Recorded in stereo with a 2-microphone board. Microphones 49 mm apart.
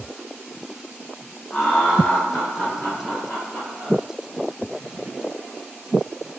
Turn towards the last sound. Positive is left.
turn(degrees=10)  # may be behind; listen again after turning